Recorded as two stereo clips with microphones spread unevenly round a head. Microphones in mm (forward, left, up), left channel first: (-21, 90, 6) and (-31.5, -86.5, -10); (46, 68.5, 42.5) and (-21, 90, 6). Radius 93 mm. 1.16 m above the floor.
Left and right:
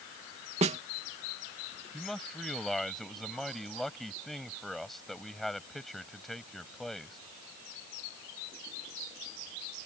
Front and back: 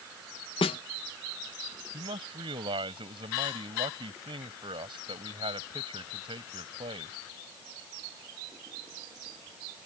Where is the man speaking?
175° left.